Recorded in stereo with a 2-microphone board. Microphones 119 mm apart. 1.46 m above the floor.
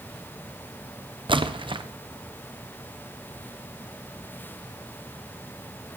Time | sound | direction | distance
1.3 | a splash | 45° right (ahead or behind) | 1.0 m